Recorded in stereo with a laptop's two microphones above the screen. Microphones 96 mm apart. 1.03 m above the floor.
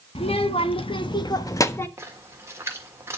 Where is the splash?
30° right (ahead or behind), 1.4 m.